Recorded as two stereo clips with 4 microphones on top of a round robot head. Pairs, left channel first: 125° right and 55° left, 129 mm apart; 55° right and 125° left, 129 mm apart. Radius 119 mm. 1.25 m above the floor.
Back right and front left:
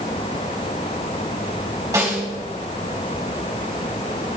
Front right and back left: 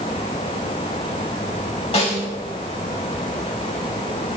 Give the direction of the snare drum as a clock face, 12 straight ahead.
12 o'clock.